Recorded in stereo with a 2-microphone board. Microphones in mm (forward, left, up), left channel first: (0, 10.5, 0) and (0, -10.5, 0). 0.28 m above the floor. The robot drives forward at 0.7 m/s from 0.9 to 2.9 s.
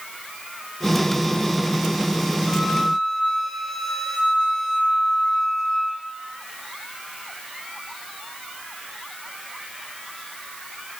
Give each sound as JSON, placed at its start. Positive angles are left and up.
{"t": 2.5, "sound": "a flute", "side_deg": -45, "distance_m": 6.5}